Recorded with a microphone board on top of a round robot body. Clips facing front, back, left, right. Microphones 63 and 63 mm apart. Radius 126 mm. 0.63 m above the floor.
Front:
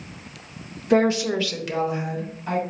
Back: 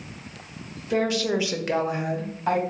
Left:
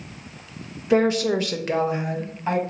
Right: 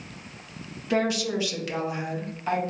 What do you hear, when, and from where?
0.9 s a woman speaking: 25° left, 0.8 m; by 2.6 s 155° left, 2 m